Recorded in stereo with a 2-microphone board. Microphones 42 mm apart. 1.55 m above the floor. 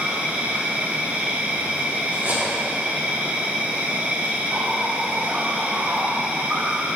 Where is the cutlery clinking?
40° right (ahead or behind), 1.7 m.